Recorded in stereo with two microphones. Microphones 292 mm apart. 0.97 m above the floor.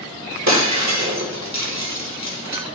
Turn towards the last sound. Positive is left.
turn(degrees=-65)  # may be behind; listen again after turning